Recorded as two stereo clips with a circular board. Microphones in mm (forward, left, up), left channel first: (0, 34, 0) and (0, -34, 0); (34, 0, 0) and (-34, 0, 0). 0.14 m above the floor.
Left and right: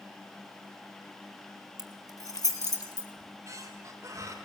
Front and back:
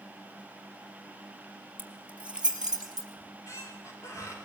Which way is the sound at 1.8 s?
115° left.